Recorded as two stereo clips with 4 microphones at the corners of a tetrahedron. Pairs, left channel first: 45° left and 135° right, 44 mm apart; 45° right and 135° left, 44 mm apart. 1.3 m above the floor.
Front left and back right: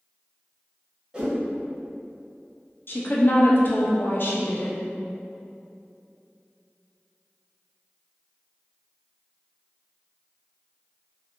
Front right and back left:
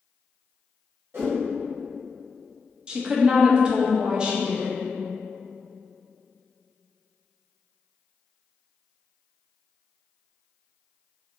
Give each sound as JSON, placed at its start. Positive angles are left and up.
{"t": 1.1, "sound": "a whoosh", "azimuth_deg": 155, "distance_m": 1.0}
{"t": 2.9, "sound": "a woman speaking", "azimuth_deg": 70, "distance_m": 0.6}